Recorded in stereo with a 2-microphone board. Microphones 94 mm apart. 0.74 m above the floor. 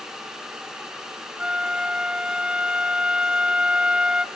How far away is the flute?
About 0.7 m.